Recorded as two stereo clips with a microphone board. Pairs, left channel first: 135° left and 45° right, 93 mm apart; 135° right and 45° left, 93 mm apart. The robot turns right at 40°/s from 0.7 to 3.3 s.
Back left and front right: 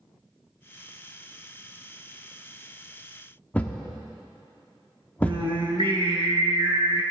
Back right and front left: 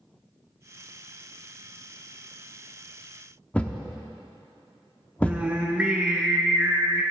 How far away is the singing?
About 1.3 m.